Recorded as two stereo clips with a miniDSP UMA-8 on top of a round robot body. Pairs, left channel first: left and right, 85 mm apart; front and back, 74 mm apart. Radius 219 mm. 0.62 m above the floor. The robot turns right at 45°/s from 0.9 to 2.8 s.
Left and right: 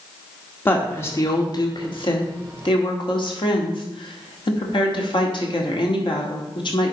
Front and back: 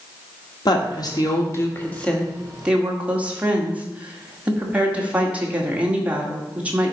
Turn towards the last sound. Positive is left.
turn(degrees=110)